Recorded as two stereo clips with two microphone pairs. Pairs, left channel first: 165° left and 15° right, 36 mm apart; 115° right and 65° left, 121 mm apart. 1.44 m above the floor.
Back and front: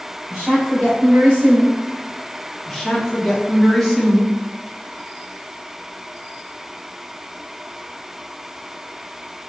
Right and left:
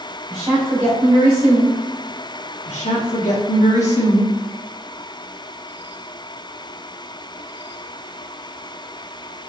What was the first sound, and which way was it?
A woman speaking, 40° left.